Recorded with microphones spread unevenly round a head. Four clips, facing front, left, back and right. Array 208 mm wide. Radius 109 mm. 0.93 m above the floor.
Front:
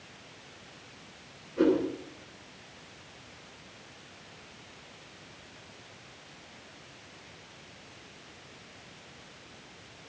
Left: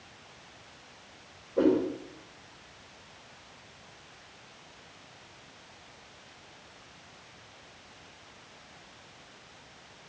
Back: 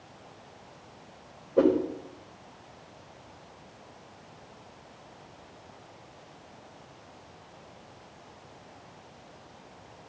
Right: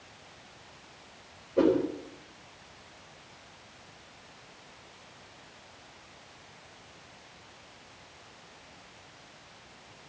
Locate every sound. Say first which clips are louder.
1.6 s a whoosh: even, back 2 dB; 175° right, 5 m